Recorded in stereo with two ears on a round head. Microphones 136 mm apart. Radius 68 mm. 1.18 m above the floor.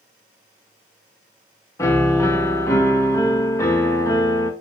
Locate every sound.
1.8 s a piano: 20° left (ahead or behind), 1.0 m